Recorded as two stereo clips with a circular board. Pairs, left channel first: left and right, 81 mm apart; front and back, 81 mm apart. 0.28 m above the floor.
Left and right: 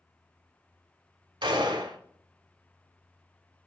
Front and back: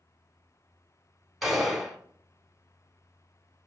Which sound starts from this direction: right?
A gunshot, at 1.4 s.